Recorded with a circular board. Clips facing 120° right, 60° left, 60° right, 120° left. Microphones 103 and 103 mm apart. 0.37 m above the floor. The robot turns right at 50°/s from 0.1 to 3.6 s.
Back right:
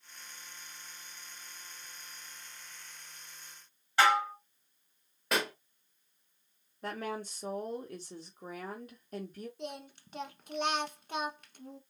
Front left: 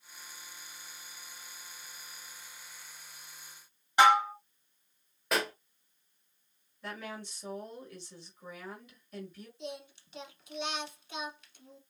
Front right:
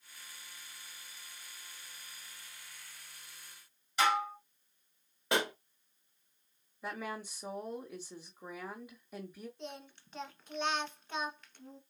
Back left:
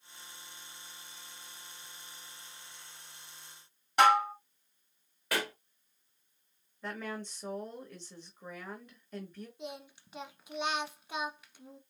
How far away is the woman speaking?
About 1.5 m.